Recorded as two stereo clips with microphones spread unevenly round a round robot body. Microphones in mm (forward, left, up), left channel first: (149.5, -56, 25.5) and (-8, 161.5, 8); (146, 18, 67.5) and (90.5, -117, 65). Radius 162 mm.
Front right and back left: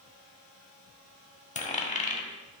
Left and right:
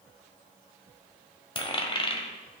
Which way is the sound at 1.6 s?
10° left.